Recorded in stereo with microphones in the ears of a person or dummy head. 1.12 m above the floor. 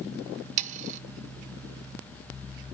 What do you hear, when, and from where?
0.6 s sawing: 45° right (ahead or behind), 0.8 m